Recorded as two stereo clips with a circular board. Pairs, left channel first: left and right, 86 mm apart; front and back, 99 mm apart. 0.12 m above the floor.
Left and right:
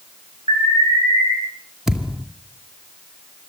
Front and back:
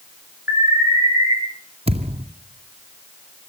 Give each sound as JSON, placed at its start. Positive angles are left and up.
{"t": 0.5, "sound": "an alarm", "azimuth_deg": -115, "distance_m": 7.0}
{"t": 1.9, "sound": "a thud", "azimuth_deg": -175, "distance_m": 2.5}